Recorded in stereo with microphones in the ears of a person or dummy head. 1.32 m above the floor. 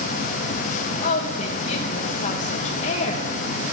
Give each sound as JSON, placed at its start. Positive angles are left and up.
{"t": 1.0, "sound": "a woman speaking", "side_deg": 40, "distance_m": 1.9}